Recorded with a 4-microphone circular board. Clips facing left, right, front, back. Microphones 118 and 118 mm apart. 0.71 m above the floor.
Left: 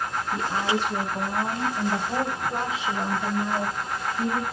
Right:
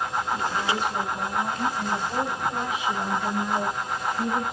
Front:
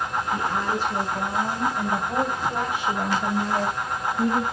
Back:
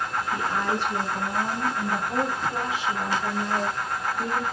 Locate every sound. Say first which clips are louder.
0.3 s a woman speaking: left 3 dB, even; 75° left, 5 m; by 4.4 s straight ahead, 4 m